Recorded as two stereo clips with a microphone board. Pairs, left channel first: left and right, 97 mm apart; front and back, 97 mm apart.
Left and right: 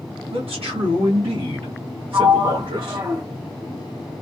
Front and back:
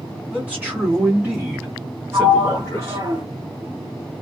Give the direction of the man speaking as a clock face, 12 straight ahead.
3 o'clock.